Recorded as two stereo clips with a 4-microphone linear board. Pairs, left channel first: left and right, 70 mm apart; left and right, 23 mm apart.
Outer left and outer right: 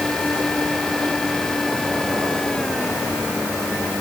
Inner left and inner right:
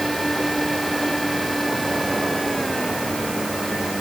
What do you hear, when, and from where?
Only background noise.